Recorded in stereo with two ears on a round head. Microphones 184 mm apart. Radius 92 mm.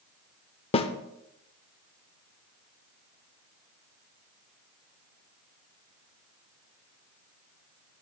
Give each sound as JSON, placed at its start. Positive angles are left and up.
{"t": 0.7, "sound": "a snare drum", "side_deg": 25, "distance_m": 0.7}